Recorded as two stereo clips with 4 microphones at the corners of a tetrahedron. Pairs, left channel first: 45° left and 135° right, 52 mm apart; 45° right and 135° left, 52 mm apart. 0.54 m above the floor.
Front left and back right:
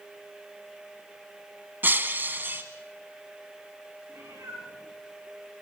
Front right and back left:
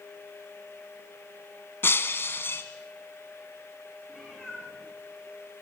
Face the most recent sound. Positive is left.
turn(degrees=-135)